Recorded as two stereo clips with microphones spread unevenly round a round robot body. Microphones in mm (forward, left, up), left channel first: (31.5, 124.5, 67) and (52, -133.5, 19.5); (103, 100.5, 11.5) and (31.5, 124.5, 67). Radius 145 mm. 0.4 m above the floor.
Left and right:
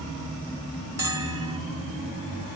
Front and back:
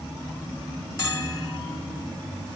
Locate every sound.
1.0 s a bell: 10° right, 3.5 m